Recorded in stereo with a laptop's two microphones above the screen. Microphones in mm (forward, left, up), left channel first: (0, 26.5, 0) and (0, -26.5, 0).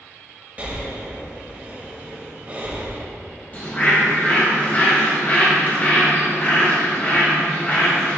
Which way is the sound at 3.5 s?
35° left (ahead or behind).